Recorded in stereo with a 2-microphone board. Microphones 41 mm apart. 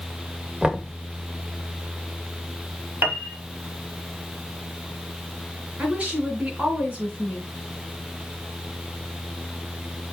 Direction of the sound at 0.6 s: 20° right (ahead or behind).